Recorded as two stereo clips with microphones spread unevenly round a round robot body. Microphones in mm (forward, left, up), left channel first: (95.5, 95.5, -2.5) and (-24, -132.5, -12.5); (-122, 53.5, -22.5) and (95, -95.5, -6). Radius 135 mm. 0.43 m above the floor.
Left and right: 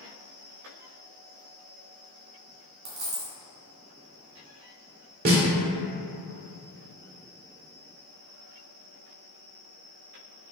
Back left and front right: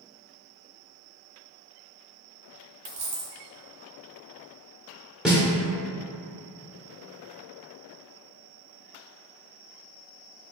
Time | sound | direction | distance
2.9 | a dropped coin | 70° right | 1.5 m
5.2 | a snare drum | 125° right | 0.9 m